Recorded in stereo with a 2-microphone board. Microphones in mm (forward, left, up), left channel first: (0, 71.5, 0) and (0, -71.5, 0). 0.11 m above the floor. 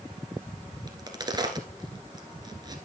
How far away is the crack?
About 1.3 m.